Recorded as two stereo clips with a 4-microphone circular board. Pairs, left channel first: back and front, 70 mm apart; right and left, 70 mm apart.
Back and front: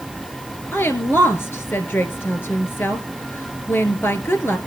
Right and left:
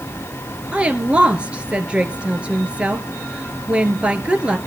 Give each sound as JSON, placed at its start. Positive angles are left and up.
{"t": 0.7, "sound": "a woman speaking", "azimuth_deg": 155, "distance_m": 1.6}